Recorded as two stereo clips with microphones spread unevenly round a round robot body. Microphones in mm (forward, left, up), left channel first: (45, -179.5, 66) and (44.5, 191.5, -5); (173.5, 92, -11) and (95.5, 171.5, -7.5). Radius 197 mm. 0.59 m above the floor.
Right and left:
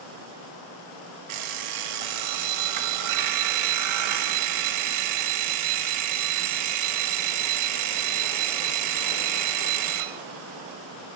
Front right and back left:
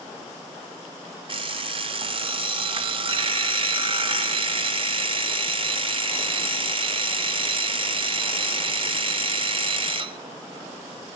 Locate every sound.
1.3 s an alarm clock: 90° left, 1.5 m